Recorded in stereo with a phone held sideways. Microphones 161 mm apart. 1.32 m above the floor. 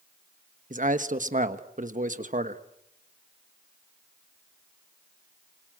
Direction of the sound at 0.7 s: 55° right (ahead or behind).